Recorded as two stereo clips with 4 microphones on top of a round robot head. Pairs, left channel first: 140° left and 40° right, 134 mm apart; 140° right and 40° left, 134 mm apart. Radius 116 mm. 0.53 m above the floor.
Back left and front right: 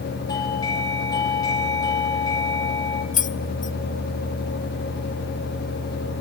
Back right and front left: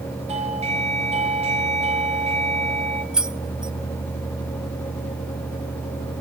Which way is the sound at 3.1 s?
125° left.